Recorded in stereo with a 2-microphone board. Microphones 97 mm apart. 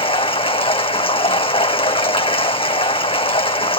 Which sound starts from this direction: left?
Running water, at 0.0 s.